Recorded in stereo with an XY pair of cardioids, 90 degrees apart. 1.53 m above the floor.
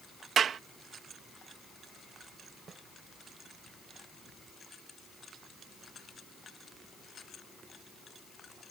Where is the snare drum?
45° right.